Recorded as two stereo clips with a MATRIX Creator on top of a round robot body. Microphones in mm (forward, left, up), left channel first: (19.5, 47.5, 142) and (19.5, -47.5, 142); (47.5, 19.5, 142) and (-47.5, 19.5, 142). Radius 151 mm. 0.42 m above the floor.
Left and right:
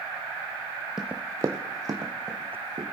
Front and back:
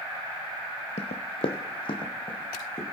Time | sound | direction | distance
1.0 | running footsteps | 5° right | 0.6 m